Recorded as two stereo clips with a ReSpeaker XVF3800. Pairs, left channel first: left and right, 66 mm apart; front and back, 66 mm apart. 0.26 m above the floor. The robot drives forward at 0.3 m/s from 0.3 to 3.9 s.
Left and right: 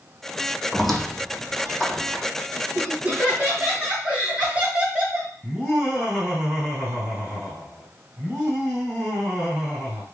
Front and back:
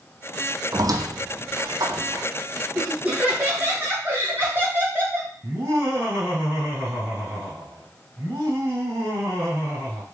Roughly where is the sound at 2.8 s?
Behind right.